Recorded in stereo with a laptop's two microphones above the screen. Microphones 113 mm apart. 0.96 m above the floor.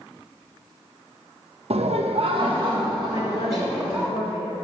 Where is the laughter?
60° right (ahead or behind), 0.6 m; by 4.1 s 25° right (ahead or behind), 1.5 m.